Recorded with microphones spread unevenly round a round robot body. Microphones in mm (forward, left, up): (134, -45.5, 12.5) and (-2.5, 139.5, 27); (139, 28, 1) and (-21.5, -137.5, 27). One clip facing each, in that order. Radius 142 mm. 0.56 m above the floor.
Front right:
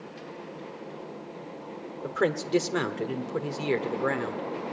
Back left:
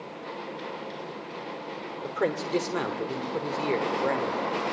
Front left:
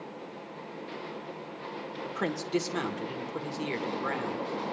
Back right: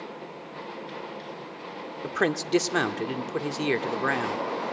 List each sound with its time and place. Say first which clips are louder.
2.0 s a man speaking: front right 1 dB, back right 7 dB; 125° right, 1.2 m